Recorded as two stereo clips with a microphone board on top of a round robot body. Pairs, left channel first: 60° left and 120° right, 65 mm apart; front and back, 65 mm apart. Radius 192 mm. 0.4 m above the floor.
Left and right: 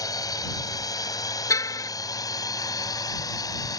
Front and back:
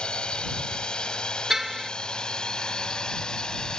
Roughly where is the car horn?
Left.